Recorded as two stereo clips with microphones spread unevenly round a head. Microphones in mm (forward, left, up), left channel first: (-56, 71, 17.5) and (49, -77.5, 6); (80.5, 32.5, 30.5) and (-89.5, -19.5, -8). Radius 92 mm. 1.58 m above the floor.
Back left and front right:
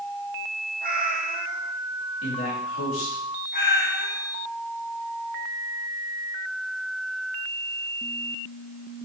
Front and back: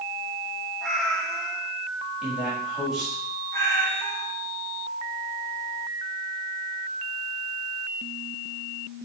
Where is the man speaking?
105° left, 4 m.